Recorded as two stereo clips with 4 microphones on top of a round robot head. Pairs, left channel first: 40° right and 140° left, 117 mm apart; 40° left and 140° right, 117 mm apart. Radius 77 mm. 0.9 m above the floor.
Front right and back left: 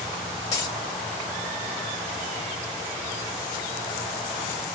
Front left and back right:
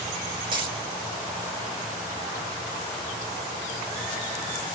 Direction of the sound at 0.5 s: 95° right.